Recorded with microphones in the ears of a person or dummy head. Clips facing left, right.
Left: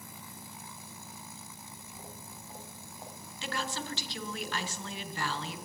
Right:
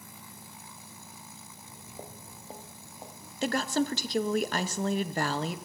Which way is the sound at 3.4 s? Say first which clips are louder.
Right 10 dB; 45° right (ahead or behind).